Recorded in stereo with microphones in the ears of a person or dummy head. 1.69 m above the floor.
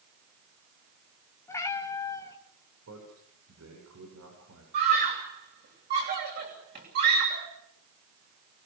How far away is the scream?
About 9 m.